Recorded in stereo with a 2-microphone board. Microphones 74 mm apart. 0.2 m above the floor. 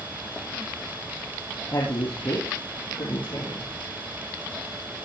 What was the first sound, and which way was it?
A woman speaking, 75° left (ahead or behind).